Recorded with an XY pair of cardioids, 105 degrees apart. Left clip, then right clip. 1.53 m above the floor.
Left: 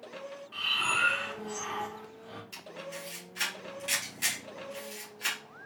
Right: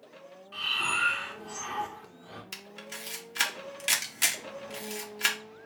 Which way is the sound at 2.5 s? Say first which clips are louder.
Even; 70° right.